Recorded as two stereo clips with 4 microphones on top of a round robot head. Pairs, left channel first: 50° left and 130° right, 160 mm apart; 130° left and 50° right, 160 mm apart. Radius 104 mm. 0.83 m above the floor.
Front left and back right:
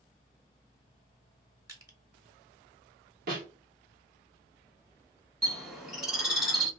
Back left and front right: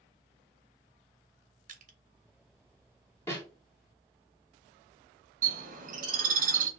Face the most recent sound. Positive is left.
turn(degrees=-40)